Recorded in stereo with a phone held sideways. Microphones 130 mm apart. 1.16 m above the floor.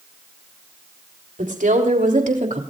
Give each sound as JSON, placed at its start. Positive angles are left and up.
{"t": 1.4, "sound": "a woman speaking", "side_deg": -80, "distance_m": 3.5}